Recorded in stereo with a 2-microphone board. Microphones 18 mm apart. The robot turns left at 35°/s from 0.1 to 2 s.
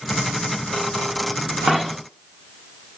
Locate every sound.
1.7 s a dropped coin: 30° right (ahead or behind), 0.9 m; by 1.9 s 20° right (ahead or behind), 0.9 m